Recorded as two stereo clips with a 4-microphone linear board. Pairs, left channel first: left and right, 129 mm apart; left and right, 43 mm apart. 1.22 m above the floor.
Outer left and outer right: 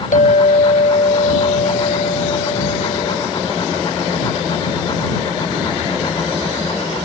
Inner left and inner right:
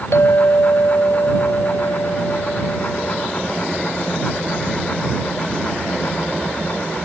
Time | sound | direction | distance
0.1 | a clink | 85° left | ?